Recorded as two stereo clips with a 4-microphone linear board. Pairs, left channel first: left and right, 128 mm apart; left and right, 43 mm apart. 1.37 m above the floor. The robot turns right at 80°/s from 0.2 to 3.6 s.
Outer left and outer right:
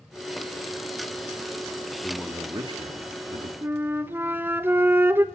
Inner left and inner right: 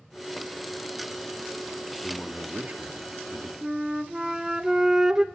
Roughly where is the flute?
Centre.